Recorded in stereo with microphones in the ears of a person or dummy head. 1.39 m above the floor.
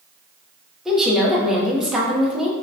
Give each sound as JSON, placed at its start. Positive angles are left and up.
{"t": 0.8, "sound": "a woman speaking", "side_deg": 0, "distance_m": 0.6}